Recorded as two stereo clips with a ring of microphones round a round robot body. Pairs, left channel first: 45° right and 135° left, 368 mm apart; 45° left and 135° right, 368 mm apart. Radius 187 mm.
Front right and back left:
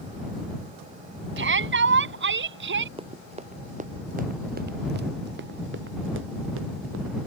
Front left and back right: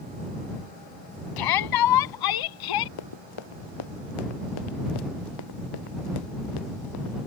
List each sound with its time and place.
1.4 s a shout: 75° left
3.0 s running footsteps: 60° left; by 7.2 s 80° left